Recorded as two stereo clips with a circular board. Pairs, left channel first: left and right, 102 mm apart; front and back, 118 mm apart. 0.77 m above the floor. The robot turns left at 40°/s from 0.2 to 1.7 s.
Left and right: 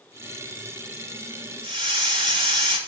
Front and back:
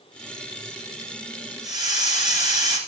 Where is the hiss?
125° right, 2.5 m.